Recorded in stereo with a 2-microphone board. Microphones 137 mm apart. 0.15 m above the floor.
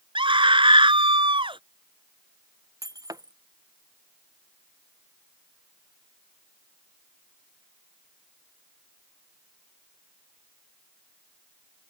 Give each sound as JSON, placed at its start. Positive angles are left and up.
{"t": 0.1, "sound": "a scream", "side_deg": -40}
{"t": 2.8, "sound": "breaking glass", "side_deg": -25}